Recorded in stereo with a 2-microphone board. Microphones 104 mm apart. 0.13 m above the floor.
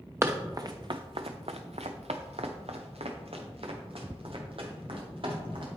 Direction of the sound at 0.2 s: 25° right (ahead or behind).